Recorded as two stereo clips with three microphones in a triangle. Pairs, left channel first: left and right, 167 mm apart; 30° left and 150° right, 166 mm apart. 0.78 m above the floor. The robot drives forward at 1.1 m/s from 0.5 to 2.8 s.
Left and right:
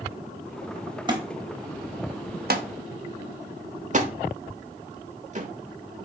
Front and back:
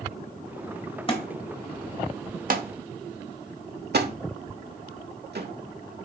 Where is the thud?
30° right, 1.4 m; by 5.5 s 135° right, 1.0 m.